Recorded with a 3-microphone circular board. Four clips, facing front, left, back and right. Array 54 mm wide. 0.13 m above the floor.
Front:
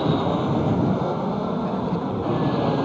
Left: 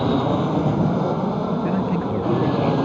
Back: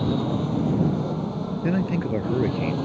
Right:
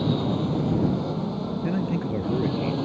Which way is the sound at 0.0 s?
55° left.